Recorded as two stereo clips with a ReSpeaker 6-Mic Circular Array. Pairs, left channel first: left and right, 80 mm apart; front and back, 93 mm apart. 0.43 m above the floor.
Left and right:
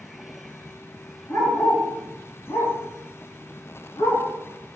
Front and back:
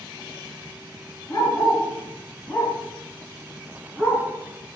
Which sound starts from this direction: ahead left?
A dog barking, at 1.3 s.